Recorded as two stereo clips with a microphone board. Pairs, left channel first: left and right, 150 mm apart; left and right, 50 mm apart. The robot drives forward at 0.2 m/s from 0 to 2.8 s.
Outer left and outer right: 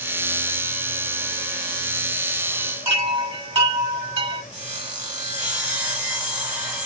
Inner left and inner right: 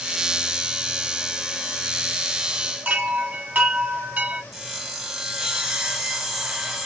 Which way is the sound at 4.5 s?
10° right (ahead or behind).